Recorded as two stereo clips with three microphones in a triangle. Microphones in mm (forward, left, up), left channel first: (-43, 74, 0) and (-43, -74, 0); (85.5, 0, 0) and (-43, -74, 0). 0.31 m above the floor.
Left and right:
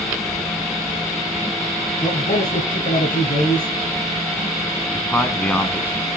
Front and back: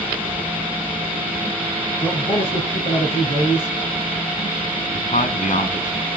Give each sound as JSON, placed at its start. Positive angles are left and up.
{"t": 2.0, "sound": "a man speaking", "azimuth_deg": 75, "distance_m": 2.5}
{"t": 4.9, "sound": "a man speaking", "azimuth_deg": 10, "distance_m": 2.5}